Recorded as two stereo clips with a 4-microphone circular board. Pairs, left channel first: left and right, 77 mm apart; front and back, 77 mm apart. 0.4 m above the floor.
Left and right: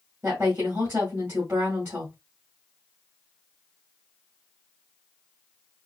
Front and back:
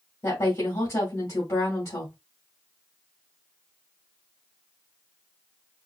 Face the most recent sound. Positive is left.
turn(degrees=-25)